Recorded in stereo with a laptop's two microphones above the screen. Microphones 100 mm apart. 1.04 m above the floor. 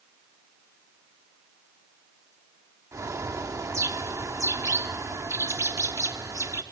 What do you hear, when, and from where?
2.9 s a bird: 30° right (ahead or behind), 0.6 m